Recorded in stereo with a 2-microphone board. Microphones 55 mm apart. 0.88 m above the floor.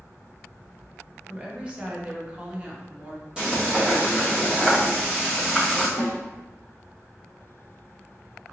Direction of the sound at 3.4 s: 20° right (ahead or behind).